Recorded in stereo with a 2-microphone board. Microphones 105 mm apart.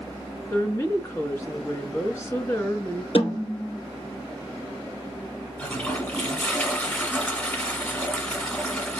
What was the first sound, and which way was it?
A woman speaking, 30° left (ahead or behind).